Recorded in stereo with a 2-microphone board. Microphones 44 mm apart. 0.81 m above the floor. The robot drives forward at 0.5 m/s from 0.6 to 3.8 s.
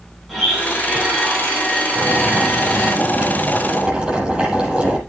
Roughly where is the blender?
Centre.